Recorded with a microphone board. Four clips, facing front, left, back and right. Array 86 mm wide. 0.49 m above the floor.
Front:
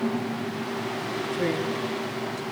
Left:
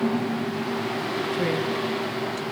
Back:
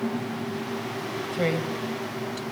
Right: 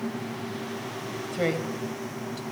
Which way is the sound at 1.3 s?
135° right.